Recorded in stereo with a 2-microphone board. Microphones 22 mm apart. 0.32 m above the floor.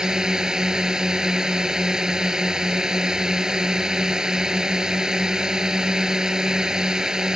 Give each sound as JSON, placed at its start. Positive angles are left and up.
{"t": 0.0, "sound": "a drone", "side_deg": -30}